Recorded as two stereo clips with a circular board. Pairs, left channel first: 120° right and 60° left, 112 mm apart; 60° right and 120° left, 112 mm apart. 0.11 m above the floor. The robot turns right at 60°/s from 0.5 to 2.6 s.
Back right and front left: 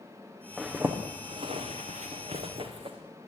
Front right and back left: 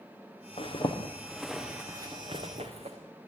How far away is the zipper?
About 5.5 m.